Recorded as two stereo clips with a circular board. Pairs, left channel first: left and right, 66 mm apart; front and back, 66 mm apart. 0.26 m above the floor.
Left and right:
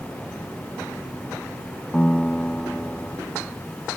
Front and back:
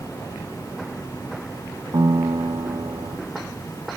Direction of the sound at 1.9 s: 165° left.